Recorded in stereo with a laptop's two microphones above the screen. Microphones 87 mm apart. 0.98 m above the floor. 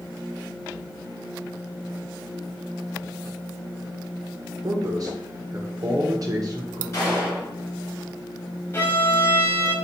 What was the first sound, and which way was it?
A man speaking, 45° right (ahead or behind).